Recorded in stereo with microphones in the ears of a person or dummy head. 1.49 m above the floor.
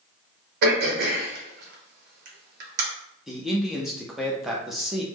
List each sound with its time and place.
0.6 s throat clearing: 55° right (ahead or behind), 1.0 m
3.3 s a man speaking: centre (ahead or behind), 0.6 m